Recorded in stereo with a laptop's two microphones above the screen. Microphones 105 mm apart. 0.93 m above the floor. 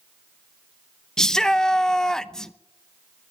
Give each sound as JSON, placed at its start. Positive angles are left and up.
{"t": 1.2, "sound": "a shout", "side_deg": 5, "distance_m": 0.7}